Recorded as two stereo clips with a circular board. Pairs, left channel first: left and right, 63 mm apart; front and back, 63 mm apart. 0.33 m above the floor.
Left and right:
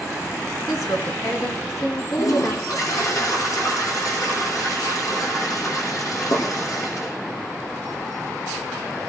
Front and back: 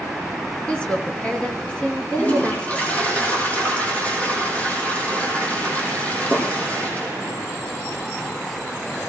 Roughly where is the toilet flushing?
Left.